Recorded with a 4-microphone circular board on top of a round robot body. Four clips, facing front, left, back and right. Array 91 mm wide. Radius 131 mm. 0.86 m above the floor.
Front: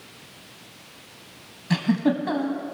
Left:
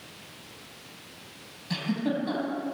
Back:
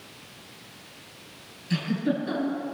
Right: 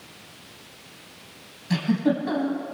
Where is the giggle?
10° right, 4 m.